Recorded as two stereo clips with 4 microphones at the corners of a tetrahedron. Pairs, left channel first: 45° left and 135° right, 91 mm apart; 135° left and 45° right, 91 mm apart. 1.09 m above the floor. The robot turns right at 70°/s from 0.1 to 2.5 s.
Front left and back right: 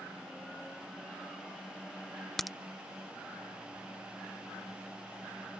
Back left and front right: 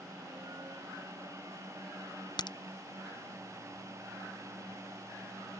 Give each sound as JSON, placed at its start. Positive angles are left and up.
{"t": 2.4, "sound": "a crack", "azimuth_deg": 130}